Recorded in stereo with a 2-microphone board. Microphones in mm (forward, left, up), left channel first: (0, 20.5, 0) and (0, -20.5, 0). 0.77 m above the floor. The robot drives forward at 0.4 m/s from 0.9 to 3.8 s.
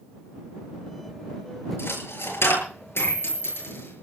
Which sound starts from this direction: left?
A dropped coin, at 1.8 s.